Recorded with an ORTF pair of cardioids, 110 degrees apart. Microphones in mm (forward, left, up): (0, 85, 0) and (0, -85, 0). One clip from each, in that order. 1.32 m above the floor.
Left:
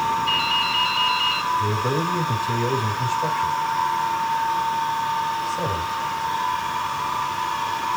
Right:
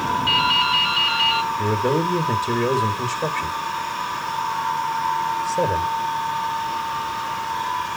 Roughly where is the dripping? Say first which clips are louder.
Right 3 dB; ahead right.